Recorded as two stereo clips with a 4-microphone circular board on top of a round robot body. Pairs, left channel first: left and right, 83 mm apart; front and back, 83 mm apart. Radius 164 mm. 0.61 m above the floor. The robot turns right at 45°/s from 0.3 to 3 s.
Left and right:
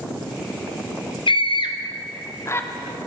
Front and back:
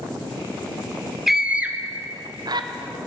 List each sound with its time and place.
1.3 s a scream: 90° left, 1.4 m; by 2.7 s 155° left, 1.4 m